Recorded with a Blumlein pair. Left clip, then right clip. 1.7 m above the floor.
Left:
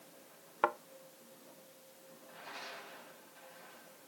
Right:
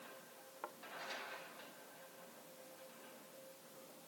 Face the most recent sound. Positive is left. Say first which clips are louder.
# left 19 dB
turn(degrees=55)